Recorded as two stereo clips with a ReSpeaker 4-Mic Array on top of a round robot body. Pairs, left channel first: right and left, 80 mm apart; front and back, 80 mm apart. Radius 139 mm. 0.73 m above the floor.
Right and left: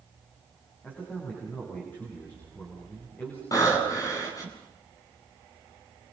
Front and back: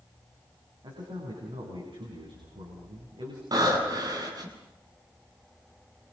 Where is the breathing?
140° right, 7.5 m.